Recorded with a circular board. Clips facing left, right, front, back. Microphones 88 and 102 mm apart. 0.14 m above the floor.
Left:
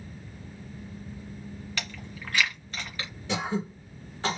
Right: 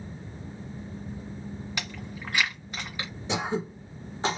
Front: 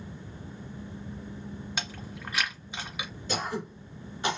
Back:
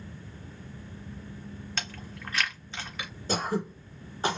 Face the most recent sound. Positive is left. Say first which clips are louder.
# right 1 dB, back 3 dB
turn(degrees=-150)